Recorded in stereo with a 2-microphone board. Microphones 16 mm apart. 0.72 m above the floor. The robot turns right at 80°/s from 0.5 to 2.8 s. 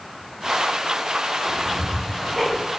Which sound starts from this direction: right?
Ticking, at 1.4 s.